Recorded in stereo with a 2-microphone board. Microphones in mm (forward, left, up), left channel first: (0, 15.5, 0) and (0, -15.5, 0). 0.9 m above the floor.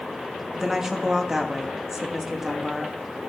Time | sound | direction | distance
0.6 | a woman speaking | 15° right (ahead or behind) | 1.4 m